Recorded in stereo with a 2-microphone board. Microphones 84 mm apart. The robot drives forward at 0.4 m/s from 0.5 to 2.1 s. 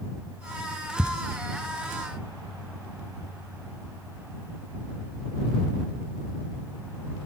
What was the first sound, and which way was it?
Ticking, 15° right (ahead or behind).